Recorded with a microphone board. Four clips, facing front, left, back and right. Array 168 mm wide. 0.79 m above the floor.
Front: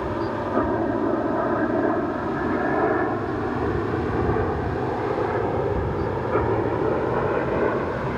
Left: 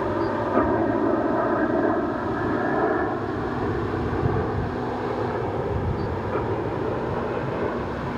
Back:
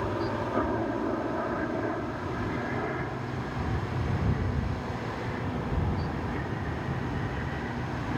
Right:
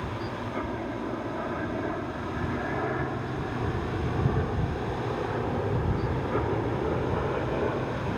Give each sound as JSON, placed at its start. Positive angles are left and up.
{"t": 0.0, "sound": "a helicopter", "azimuth_deg": 65}